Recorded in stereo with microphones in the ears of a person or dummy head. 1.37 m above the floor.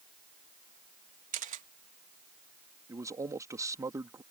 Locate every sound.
1.3 s a camera shutter: 40° right (ahead or behind)
2.9 s a man speaking: 15° right (ahead or behind)